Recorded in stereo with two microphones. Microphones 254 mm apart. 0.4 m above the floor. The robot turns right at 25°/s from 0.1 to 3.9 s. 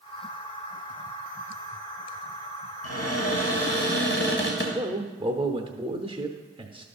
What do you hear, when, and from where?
2.8 s a cupboard door: 70° left (ahead or behind), 2 m; by 4.7 s 45° left (ahead or behind), 2 m
4.8 s a man speaking: 20° right (ahead or behind), 0.8 m